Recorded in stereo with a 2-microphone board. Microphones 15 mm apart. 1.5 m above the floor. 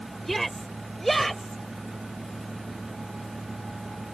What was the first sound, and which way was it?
A shout, 15° left (ahead or behind).